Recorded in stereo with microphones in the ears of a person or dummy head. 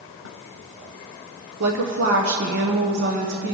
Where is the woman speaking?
60° right (ahead or behind), 1.0 m.